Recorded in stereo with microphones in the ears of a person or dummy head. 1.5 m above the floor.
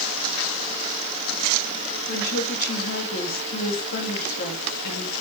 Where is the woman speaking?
55° left (ahead or behind), 2.5 m.